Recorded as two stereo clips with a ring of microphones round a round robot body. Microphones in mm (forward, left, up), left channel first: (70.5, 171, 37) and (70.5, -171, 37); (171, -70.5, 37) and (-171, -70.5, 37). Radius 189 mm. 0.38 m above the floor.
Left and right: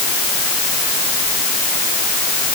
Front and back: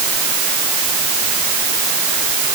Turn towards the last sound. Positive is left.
No sound to turn to.